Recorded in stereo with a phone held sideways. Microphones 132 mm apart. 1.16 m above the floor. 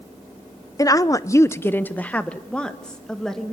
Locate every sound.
0.8 s a woman speaking: 25° left (ahead or behind), 0.7 m; by 3.5 s 5° left (ahead or behind), 2 m